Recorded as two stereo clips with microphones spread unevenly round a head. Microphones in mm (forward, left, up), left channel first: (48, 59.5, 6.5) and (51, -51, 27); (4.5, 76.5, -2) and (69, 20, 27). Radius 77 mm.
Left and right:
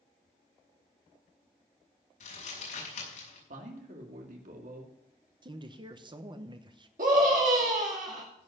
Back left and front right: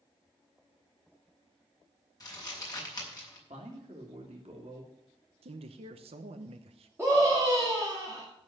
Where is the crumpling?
95° left, 6 m.